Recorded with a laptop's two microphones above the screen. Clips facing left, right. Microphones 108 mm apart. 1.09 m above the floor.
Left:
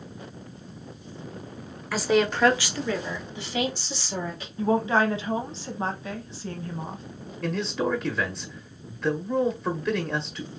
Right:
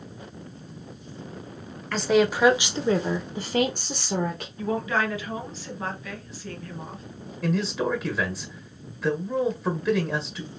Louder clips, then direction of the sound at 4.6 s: Left 4 dB; 30° left (ahead or behind).